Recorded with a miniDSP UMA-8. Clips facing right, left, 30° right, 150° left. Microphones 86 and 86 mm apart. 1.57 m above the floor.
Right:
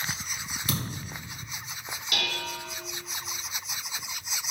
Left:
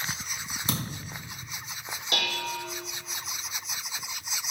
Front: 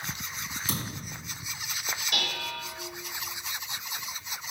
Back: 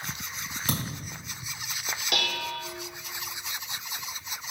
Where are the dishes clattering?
150° left, 2.5 m.